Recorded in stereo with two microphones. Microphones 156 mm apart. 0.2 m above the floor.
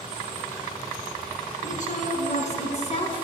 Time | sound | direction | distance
1.6 | a woman speaking | 55° left (ahead or behind) | 2.5 m